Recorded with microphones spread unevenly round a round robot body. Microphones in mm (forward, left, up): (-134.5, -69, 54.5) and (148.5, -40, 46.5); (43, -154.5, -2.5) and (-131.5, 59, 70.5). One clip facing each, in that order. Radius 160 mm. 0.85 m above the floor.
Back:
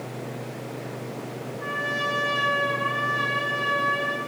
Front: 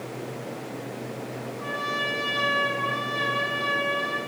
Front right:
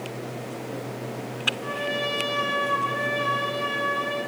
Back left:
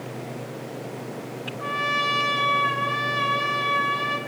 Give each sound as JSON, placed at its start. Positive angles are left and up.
{"t": 1.6, "sound": "a trumpet", "azimuth_deg": 90, "distance_m": 5.5}